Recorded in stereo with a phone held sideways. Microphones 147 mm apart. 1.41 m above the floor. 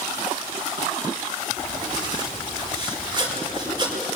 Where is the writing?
30° right (ahead or behind), 5 m.